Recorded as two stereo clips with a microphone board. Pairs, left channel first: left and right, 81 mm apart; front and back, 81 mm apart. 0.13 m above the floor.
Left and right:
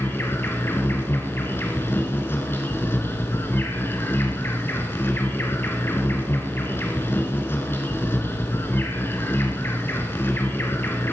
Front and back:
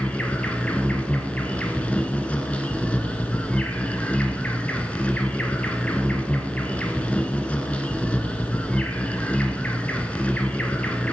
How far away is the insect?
About 1.3 m.